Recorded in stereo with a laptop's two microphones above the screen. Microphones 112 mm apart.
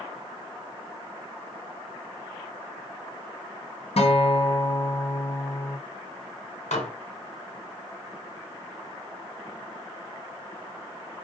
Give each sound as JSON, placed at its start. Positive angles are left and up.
{"t": 4.0, "sound": "a guitar", "side_deg": 60, "distance_m": 0.6}
{"t": 6.7, "sound": "dishes clattering", "side_deg": 80, "distance_m": 0.8}